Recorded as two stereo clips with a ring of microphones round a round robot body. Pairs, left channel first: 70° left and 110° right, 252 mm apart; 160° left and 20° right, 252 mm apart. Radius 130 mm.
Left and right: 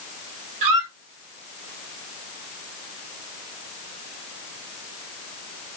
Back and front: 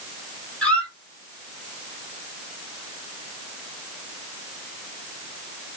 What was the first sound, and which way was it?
A squeak, 115° right.